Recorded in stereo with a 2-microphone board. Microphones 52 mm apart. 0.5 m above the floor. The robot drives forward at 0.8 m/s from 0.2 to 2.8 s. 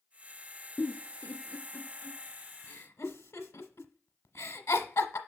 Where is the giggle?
25° left (ahead or behind), 1.9 m; by 5.2 s 80° left, 0.8 m.